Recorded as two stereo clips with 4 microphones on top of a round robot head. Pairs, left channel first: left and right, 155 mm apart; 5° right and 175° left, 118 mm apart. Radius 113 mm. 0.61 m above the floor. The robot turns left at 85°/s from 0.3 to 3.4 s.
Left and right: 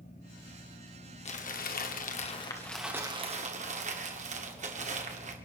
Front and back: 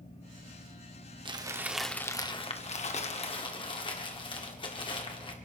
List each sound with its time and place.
1.2 s crumpling: 130° left, 1.7 m; by 5.3 s 50° right, 1.7 m